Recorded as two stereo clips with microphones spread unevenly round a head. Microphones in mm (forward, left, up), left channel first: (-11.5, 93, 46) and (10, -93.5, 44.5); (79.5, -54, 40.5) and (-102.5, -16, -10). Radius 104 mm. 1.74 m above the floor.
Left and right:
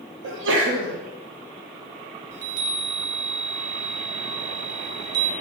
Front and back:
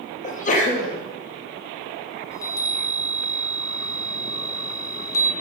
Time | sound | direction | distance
0.2 | a sneeze | 60° right | 1.0 m
2.3 | a chime | 65° right | 0.7 m